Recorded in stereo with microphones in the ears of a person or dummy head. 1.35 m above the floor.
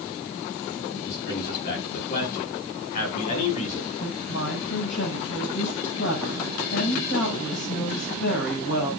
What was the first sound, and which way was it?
A man speaking, 50° left (ahead or behind).